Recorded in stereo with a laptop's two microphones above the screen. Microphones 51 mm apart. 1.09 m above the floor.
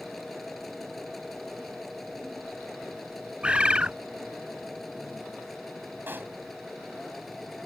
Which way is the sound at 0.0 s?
5° left (ahead or behind).